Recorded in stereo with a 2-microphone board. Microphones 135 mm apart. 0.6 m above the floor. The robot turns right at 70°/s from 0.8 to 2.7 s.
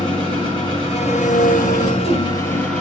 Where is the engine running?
40° left, 5 m; by 2.8 s 175° left, 5 m.